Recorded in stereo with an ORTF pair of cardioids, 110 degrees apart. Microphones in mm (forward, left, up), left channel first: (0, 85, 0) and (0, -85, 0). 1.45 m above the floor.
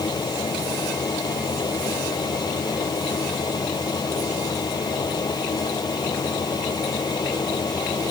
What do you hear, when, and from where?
0.0 s a fan: 25° left